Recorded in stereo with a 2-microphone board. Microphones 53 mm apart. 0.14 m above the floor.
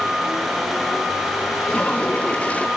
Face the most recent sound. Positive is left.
turn(degrees=25)  # may be behind; listen again after turning